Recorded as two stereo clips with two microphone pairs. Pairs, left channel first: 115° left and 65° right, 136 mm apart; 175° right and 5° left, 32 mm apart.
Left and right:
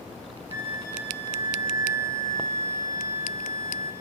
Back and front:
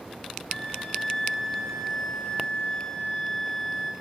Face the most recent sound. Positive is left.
turn(degrees=120)